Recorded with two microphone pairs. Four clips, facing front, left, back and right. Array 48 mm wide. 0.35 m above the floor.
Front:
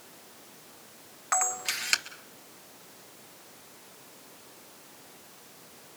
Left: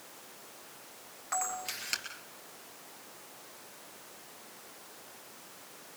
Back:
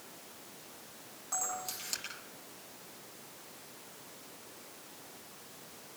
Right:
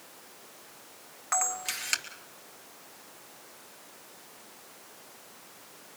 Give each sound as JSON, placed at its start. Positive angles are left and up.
{"t": 1.3, "sound": "a camera shutter", "azimuth_deg": -20, "distance_m": 2.5}